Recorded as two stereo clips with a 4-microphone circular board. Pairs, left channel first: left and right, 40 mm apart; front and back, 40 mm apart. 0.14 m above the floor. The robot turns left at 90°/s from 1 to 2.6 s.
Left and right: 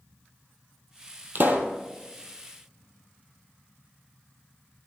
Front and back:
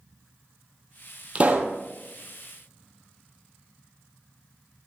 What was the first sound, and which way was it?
A pop, 120° right.